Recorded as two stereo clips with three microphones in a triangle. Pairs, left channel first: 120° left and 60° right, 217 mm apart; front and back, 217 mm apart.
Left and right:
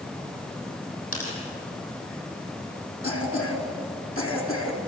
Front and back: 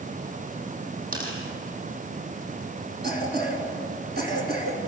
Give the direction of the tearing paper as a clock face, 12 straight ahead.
8 o'clock.